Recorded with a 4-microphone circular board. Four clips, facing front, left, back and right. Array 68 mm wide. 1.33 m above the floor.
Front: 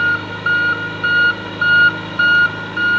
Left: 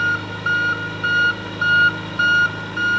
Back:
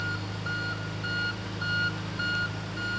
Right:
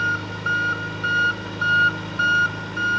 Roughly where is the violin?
I don't hear a violin.